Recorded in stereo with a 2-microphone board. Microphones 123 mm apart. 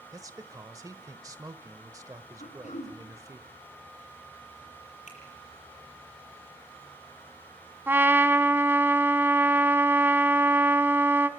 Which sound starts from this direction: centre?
A trumpet, at 7.9 s.